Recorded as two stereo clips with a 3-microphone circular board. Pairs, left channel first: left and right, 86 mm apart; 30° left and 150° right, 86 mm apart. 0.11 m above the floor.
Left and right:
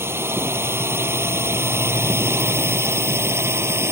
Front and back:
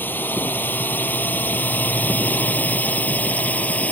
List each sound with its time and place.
0.0 s a drone: 35° right; by 3.9 s 40° right